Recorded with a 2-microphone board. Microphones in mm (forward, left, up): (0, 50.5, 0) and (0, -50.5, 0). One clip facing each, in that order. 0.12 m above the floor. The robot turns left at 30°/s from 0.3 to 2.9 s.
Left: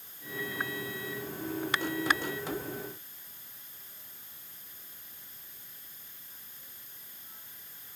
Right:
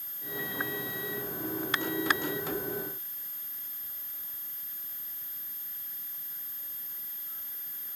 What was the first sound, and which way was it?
Only background noise.